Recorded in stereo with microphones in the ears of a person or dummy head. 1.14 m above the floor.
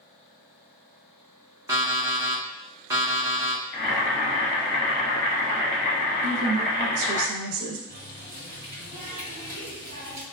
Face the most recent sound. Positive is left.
turn(degrees=-60)  # may be behind; listen again after turning